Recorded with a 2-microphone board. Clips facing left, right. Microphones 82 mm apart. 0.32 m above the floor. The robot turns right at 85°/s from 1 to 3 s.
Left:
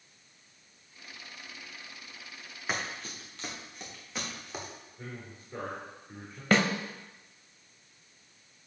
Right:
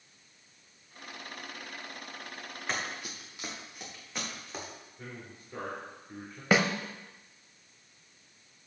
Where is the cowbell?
I don't hear a cowbell.